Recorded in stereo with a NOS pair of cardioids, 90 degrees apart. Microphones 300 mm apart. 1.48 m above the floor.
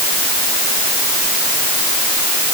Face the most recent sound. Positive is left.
No sound to turn to.